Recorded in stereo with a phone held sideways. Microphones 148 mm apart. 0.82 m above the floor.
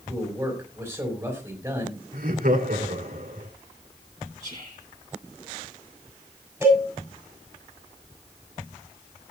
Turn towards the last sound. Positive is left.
turn(degrees=-15)  # may be behind; listen again after turning